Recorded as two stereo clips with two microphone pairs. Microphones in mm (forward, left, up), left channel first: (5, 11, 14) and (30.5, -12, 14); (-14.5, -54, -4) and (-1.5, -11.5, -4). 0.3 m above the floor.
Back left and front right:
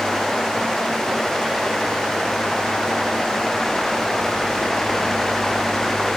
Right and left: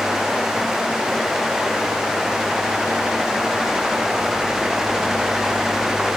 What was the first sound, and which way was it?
Only background noise.